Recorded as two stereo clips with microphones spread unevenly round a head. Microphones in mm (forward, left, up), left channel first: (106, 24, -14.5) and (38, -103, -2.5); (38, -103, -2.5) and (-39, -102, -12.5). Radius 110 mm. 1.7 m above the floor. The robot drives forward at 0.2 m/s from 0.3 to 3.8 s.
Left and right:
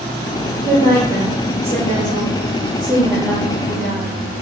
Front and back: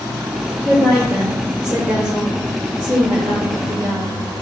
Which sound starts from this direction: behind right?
A woman speaking, at 0.7 s.